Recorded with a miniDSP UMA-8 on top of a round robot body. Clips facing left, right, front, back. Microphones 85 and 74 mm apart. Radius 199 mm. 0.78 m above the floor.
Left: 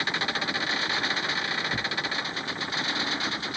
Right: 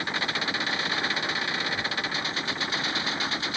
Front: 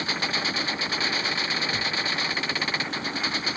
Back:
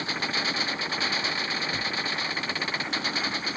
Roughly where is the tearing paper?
Left.